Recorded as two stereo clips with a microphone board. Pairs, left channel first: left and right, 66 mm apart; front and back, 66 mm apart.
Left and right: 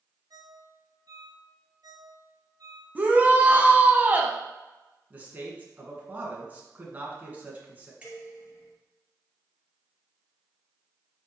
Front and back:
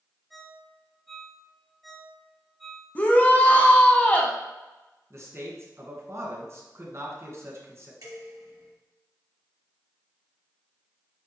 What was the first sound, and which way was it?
A ringtone, 90° right.